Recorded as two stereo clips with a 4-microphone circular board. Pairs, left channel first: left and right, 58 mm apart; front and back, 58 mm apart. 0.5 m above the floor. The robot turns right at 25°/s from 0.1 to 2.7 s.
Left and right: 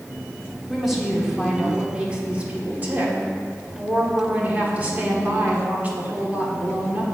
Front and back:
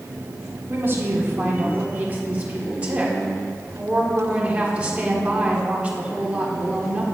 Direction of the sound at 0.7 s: Straight behind.